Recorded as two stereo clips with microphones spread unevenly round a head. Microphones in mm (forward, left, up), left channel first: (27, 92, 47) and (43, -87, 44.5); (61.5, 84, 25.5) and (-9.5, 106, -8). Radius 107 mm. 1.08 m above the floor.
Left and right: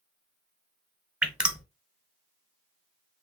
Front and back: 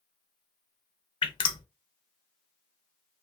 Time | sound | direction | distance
1.2 | dripping | straight ahead | 1.0 m